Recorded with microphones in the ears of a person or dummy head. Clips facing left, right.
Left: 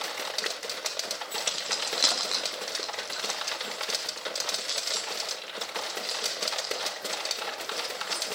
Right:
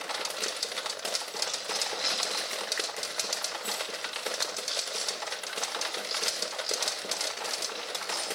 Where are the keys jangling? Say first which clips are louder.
Even; 85° left, 1.5 m; by 8.2 s 70° left (ahead or behind), 6 m.